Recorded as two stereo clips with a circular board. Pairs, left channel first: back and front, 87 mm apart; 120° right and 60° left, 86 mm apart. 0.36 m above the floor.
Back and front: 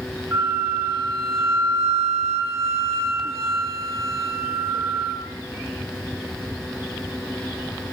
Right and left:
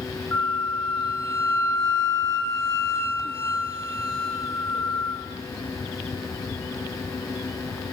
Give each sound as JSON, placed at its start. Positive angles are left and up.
{"t": 0.3, "sound": "a flute", "azimuth_deg": -60, "distance_m": 2.5}